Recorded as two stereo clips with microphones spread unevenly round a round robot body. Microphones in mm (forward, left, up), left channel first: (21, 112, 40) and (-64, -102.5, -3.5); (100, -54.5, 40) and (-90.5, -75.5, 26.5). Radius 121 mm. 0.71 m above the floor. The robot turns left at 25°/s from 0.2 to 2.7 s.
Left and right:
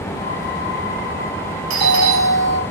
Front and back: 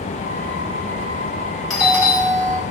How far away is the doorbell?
About 3.5 m.